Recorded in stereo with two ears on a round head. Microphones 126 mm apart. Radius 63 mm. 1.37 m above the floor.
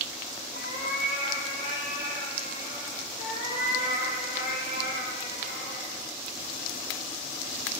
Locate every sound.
0.5 s a cat meowing: 55° left (ahead or behind), 1.9 m; by 3.1 s 30° left (ahead or behind), 3.5 m
3.2 s a cat meowing: 65° left (ahead or behind), 2.5 m